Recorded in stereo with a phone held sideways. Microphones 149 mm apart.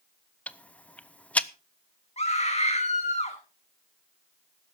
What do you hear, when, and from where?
0.5 s ticking: 10° left (ahead or behind), 0.6 m
2.2 s a scream: 45° left (ahead or behind), 1.7 m